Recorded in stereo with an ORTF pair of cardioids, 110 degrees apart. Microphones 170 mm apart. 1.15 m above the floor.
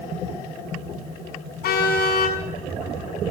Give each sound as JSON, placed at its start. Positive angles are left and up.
{"t": 1.6, "sound": "a car horn", "azimuth_deg": 65, "distance_m": 6.5}